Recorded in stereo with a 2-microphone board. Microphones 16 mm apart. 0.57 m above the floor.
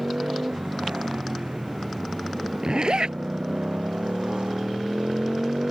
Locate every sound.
0.0 s a motorcycle: 85° right; by 5.7 s 70° right (ahead or behind)
2.6 s a zipper: 60° right (ahead or behind)